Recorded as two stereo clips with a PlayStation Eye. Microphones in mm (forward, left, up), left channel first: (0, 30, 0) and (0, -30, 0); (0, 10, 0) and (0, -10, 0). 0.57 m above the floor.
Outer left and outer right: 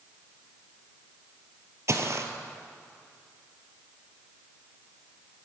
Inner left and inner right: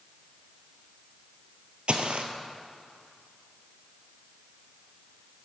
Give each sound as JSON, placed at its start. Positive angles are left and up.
{"t": 1.9, "sound": "footsteps", "side_deg": -55, "distance_m": 0.9}